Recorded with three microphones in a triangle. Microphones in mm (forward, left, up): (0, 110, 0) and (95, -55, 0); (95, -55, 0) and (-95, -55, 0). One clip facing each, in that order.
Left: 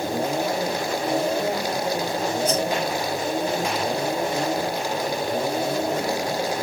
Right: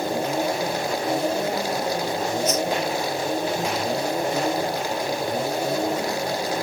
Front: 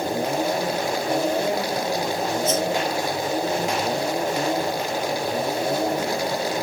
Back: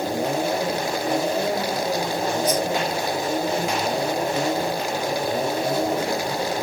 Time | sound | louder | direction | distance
2.5 | a whoosh | left 1 dB, even | 65° left | ?